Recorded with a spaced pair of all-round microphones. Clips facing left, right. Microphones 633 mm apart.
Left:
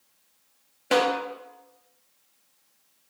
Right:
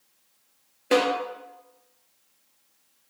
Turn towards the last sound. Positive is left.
turn(degrees=20)  # may be behind; listen again after turning